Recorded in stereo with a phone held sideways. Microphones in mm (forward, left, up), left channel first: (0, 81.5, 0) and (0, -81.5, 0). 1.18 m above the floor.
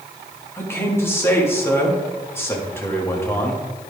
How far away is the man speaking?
About 1.8 m.